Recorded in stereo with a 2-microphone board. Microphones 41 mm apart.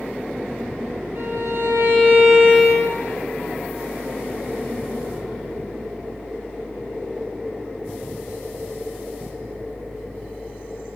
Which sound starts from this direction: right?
A violin, at 1.1 s.